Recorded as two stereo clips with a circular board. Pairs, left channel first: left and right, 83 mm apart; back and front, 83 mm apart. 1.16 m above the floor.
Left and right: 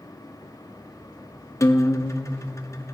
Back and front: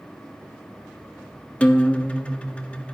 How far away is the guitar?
About 0.7 m.